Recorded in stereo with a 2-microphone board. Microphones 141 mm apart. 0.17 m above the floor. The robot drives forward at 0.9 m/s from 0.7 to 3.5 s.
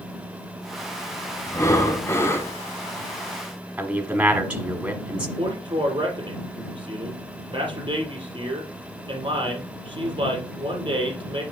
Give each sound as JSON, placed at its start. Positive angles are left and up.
{"t": 1.5, "sound": "breathing", "side_deg": 20, "distance_m": 1.3}
{"t": 3.8, "sound": "a man speaking", "side_deg": -10, "distance_m": 1.1}
{"t": 5.4, "sound": "a man speaking", "side_deg": -35, "distance_m": 3.5}